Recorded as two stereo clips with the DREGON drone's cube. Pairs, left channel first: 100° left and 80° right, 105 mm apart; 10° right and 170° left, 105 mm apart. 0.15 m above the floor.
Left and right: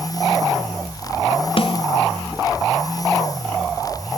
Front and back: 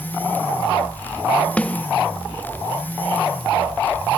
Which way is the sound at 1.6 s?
70° left.